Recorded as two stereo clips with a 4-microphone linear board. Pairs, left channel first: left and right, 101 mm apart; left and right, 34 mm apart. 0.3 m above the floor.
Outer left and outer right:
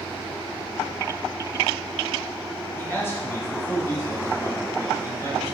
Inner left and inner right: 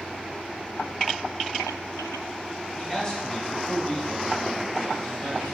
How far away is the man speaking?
About 2 m.